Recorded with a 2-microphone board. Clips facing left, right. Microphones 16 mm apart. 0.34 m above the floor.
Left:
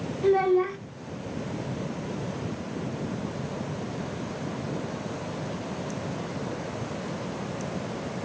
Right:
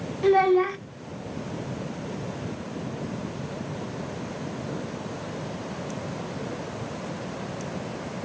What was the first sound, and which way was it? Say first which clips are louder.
A child speaking: right 3 dB; 30° right (ahead or behind).